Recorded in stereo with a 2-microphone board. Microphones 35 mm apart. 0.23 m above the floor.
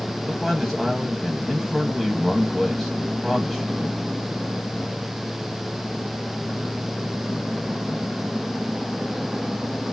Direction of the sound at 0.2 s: Centre (ahead or behind).